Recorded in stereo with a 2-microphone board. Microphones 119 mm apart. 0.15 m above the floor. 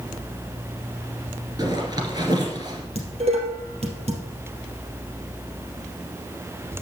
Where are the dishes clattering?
60° right (ahead or behind), 3 m.